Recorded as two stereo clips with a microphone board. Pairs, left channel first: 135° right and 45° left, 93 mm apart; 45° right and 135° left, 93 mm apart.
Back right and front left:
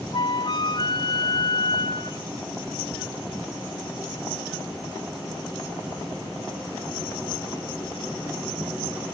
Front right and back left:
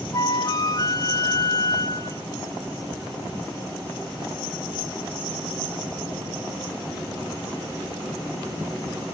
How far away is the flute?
About 1.5 m.